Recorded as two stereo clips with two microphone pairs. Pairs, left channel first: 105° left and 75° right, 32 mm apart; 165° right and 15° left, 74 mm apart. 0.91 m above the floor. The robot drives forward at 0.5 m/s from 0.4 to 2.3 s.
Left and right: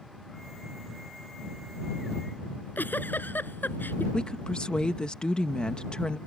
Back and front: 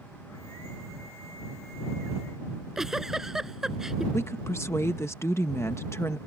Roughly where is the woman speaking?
Behind left.